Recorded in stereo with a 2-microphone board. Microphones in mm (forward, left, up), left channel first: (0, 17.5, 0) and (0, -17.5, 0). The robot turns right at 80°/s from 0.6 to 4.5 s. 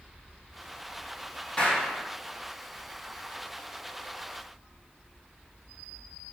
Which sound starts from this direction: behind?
A clap, at 1.6 s.